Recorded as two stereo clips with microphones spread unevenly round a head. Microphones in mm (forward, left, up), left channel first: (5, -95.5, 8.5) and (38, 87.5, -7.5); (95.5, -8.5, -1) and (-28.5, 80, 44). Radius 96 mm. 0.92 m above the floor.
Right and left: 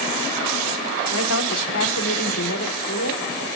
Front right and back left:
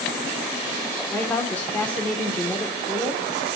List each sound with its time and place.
1.1 s a woman speaking: 115° right, 3.5 m